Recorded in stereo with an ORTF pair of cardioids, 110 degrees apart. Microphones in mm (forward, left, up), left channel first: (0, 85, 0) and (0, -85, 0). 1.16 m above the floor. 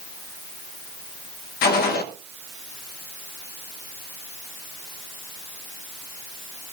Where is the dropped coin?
No dropped coin in this recording.